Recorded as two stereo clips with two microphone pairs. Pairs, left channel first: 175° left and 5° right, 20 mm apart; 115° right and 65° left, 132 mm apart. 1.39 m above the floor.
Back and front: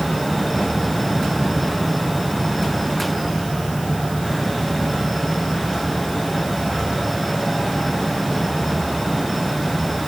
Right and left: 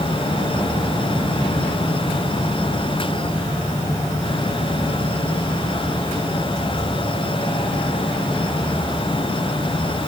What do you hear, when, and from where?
Only background noise.